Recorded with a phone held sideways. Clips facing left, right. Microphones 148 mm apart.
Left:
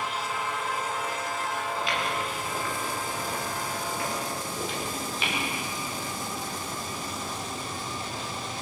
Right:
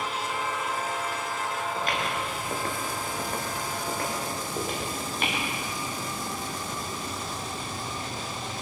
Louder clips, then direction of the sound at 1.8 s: Even; 45° right (ahead or behind).